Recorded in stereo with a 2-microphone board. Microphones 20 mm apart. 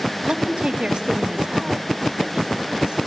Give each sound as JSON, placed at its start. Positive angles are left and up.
{"t": 0.3, "sound": "a woman speaking", "side_deg": -70, "distance_m": 2.5}